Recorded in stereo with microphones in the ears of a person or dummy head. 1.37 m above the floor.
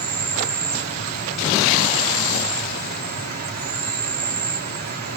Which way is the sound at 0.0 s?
50° right (ahead or behind).